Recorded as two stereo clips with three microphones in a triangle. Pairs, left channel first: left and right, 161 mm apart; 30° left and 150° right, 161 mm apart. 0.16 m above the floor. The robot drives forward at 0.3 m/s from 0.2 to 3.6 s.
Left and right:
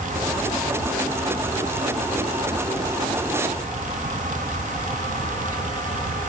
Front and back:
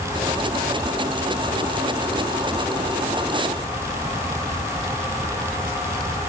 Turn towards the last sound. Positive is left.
No sound to turn to.